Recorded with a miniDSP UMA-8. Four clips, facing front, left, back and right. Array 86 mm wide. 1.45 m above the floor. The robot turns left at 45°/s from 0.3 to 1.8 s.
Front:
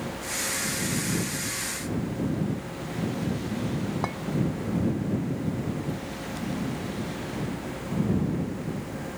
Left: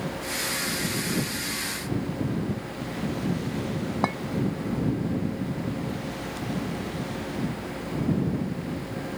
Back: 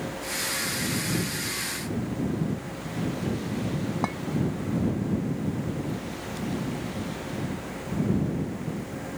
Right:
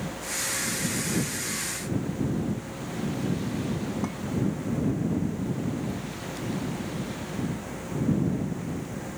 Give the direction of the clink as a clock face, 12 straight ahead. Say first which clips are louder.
Left 7 dB, back 4 dB; 9 o'clock.